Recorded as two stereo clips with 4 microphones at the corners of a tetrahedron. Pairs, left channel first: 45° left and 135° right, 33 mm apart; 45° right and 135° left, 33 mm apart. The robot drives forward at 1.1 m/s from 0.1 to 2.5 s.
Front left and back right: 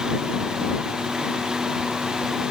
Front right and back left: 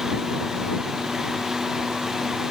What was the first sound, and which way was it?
Only background noise.